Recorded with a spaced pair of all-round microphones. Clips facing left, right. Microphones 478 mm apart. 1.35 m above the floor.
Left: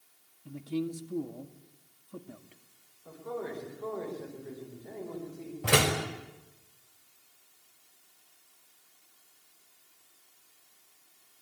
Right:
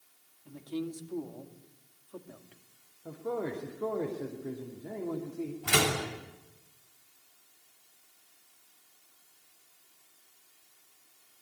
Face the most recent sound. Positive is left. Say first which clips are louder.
# left 4 dB
turn(degrees=85)